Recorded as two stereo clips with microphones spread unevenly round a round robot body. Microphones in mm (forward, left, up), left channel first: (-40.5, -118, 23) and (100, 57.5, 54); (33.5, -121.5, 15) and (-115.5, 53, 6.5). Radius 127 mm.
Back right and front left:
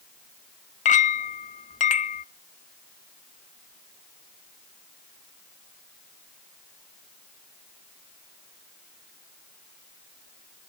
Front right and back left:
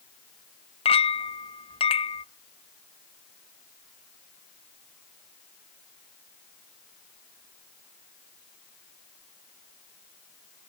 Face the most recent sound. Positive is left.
turn(degrees=-105)